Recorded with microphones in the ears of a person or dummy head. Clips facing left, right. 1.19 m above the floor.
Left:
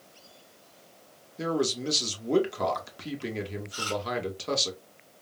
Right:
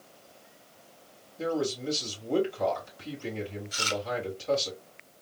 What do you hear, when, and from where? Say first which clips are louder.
1.4 s a man speaking: left 2 dB; 65° left (ahead or behind), 1.7 m
3.7 s chewing: left 1 dB; 25° right (ahead or behind), 0.6 m